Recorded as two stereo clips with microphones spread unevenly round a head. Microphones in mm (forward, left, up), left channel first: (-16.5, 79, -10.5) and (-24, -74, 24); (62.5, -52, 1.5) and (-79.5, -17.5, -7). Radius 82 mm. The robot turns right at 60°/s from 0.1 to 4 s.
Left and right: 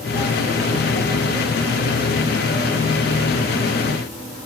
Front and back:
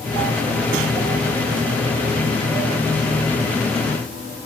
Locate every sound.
Only background noise.